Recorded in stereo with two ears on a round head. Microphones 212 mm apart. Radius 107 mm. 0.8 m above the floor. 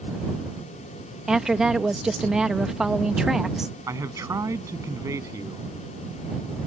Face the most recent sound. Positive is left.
turn(degrees=-15)  # may be behind; listen again after turning